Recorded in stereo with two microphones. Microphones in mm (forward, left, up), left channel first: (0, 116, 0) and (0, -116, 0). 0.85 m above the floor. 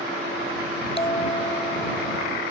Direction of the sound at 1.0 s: 25° left (ahead or behind).